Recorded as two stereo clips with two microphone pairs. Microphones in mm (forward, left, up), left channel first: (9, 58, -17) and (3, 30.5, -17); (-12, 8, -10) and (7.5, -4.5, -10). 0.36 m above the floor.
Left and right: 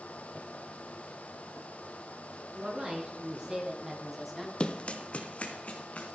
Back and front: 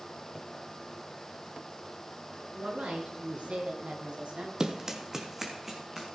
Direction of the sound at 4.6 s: 30° left.